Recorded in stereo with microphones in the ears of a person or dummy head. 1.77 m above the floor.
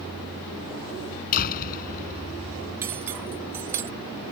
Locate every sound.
1.3 s a door slam: 45° left (ahead or behind)
2.8 s cutlery clinking: 15° right (ahead or behind)